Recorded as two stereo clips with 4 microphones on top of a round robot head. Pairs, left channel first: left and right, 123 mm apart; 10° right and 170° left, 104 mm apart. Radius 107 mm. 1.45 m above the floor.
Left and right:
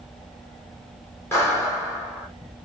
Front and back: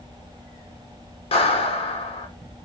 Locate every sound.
1.3 s a clap: 15° left, 4.5 m